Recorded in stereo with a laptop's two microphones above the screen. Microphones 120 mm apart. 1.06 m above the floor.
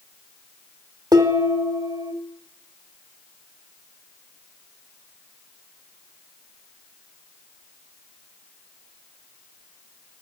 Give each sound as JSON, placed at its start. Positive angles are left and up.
{"t": 1.1, "sound": "dishes clattering", "side_deg": -30, "distance_m": 1.0}